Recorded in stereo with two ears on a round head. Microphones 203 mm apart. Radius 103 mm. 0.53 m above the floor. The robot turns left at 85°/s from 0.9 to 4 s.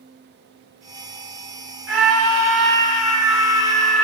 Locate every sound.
1.9 s a scream: 115° right, 2.5 m; by 4.0 s 65° left, 2.5 m